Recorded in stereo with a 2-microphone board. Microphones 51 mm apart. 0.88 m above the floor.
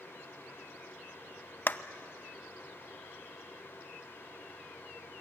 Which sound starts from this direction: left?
A clap, at 1.7 s.